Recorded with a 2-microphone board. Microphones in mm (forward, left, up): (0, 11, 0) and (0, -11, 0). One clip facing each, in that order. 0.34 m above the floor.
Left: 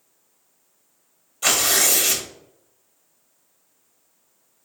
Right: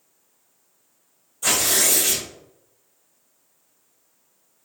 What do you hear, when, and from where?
1.4 s tearing paper: 50° left (ahead or behind), 0.9 m